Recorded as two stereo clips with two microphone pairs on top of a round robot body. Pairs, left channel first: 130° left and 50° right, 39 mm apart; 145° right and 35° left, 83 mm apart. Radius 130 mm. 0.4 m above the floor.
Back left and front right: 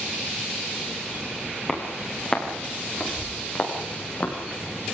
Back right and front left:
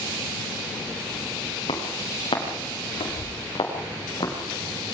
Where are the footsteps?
155° right, 7 m; by 4.3 s 175° left, 8 m.